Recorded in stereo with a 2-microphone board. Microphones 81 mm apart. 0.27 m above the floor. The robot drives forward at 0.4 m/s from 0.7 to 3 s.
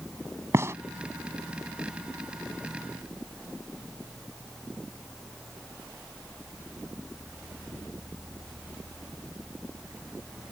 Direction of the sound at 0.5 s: 35° right (ahead or behind).